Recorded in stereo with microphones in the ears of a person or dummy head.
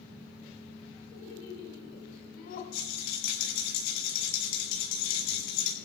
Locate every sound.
1.1 s laughter: 75° left (ahead or behind), 4.5 m; by 2.6 s 50° left (ahead or behind), 4 m
2.7 s a rattle: 75° left (ahead or behind), 7 m